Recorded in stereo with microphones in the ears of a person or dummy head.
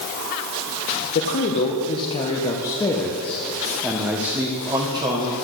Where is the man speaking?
50° left (ahead or behind), 1.8 m; by 5.3 s 25° right (ahead or behind), 1.8 m.